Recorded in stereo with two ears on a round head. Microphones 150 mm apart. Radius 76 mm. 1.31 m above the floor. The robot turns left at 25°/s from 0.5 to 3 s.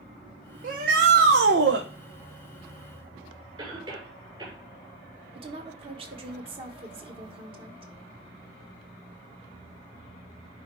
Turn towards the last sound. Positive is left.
turn(degrees=-30)  # may be behind; listen again after turning